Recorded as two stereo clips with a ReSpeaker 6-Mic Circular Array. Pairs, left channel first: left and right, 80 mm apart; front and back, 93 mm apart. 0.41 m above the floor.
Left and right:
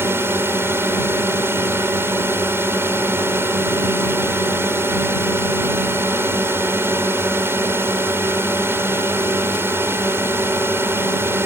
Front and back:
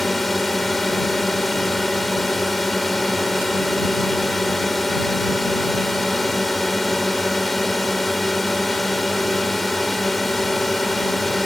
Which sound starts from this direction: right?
A drone, at 0.0 s.